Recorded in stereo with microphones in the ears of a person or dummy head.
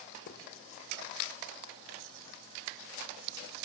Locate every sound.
0.3 s writing: 60° left (ahead or behind), 3 m